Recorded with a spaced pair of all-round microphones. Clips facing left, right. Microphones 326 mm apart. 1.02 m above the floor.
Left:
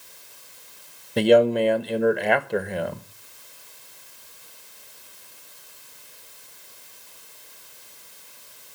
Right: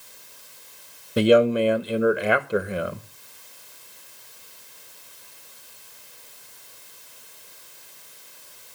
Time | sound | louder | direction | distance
1.2 | a man speaking | even | 10° right (ahead or behind) | 0.9 m